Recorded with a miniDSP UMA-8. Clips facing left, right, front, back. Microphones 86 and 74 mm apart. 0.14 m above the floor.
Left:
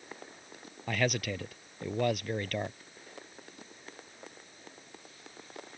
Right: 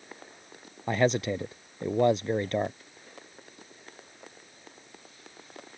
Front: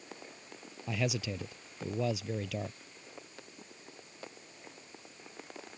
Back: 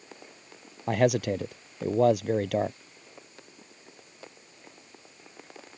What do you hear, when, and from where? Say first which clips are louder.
0.9 s a man speaking: right 6 dB, back 11 dB; 150° right